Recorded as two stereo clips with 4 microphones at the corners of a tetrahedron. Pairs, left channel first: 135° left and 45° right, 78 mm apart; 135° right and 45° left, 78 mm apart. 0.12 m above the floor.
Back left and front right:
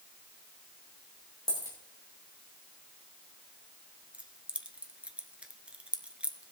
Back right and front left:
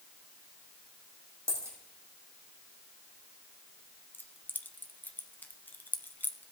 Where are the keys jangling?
100° right, 0.9 m.